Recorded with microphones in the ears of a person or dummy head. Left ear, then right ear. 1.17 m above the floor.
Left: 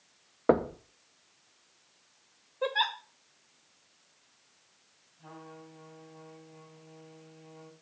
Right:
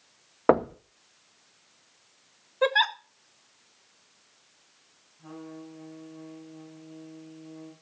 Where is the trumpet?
75° left (ahead or behind), 6 m.